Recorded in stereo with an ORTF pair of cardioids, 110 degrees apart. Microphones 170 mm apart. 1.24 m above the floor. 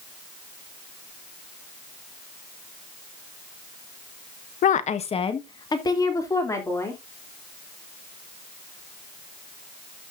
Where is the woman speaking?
55° left, 1.1 m; by 7.0 s 15° left, 3.5 m.